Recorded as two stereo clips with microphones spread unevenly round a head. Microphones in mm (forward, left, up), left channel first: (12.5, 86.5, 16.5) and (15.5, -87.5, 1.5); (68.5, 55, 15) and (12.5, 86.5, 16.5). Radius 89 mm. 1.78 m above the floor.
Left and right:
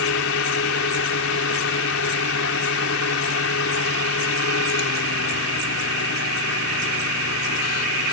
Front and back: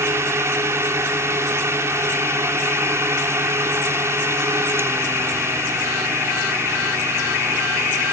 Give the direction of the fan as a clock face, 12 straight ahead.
8 o'clock.